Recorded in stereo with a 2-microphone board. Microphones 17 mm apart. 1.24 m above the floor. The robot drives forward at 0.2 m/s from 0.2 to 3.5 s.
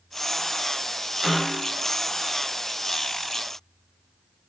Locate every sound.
1.2 s a snare drum: 65° right (ahead or behind), 1.7 m